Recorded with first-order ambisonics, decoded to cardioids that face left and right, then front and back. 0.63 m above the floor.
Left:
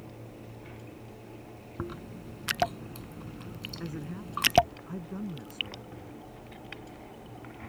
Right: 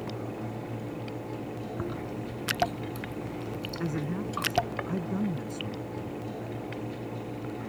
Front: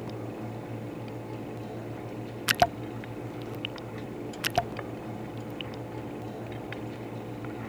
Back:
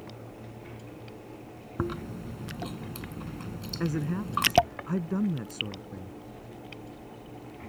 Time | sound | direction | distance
1.8 | chewing | straight behind | ?
3.8 | a man speaking | 160° right | ?